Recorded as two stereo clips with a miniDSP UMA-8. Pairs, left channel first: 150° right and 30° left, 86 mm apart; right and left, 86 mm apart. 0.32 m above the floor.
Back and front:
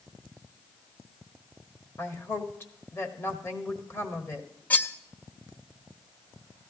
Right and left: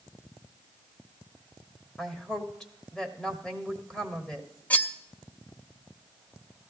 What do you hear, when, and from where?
2.0 s a woman speaking: 165° right, 1.0 m
4.7 s cutlery clinking: 125° right, 0.5 m